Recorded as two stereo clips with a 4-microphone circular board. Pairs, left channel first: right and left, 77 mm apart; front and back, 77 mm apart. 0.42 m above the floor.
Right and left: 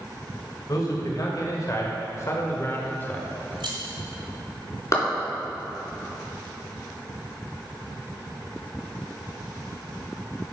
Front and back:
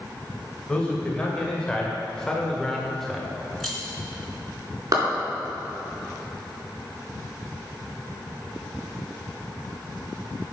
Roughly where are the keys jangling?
Left.